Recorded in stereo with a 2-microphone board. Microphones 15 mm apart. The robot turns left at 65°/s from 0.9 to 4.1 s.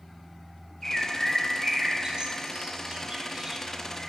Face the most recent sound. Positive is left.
turn(degrees=15)  # may be behind; listen again after turning